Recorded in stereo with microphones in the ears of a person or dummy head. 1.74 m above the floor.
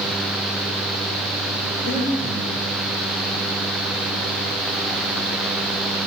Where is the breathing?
85° left, 7 m.